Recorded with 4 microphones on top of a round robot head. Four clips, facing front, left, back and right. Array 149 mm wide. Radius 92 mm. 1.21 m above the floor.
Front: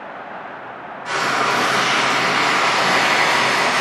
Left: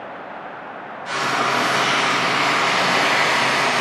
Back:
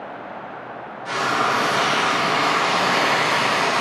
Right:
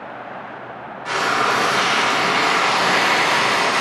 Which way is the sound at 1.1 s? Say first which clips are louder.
Right 2 dB, front 1 dB; 85° right.